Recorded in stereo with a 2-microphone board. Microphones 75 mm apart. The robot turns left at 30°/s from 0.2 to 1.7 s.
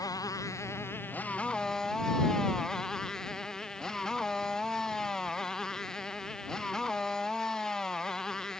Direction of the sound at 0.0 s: 50° left.